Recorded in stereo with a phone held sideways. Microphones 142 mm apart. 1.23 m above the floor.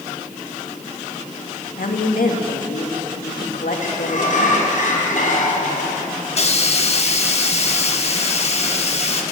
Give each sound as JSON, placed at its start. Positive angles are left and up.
{"t": 1.8, "sound": "a woman speaking", "side_deg": 80, "distance_m": 1.9}
{"t": 3.8, "sound": "a sliding door", "side_deg": 65, "distance_m": 4.5}
{"t": 6.3, "sound": "a hiss", "side_deg": 50, "distance_m": 1.3}